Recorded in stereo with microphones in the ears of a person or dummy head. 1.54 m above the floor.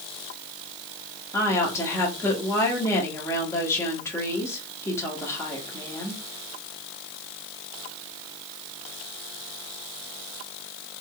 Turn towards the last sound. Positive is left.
turn(degrees=15)  # may be behind; listen again after turning